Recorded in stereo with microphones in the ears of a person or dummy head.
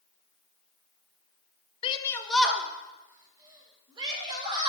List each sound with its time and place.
1.8 s a shout: 35° left (ahead or behind), 0.5 m; by 4.7 s 20° right (ahead or behind), 2.5 m